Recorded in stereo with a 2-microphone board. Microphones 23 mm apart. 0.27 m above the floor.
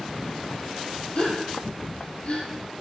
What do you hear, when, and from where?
1.1 s a gasp: 50° left (ahead or behind), 4.5 m